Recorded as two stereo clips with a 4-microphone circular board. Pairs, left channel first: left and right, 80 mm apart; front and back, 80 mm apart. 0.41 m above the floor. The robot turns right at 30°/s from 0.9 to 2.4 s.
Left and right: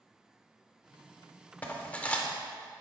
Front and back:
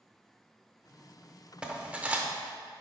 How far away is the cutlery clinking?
About 0.6 m.